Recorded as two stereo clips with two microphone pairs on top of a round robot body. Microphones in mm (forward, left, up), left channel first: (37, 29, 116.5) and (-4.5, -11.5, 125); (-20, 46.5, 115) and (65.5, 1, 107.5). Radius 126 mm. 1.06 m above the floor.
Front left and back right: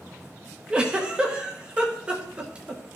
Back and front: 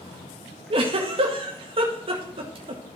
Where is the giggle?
65° right, 0.9 m.